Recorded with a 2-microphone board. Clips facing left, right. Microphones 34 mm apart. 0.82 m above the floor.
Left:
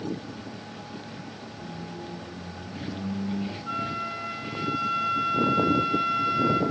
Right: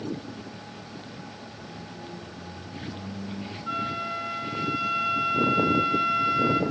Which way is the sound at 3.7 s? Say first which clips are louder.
Right 3 dB; 10° right (ahead or behind).